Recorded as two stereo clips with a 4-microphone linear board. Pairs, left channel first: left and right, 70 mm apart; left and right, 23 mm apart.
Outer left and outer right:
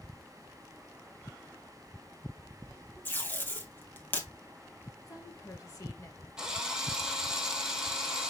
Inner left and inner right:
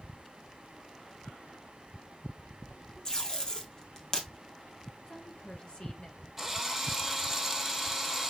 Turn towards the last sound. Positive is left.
turn(degrees=-10)  # may be behind; listen again after turning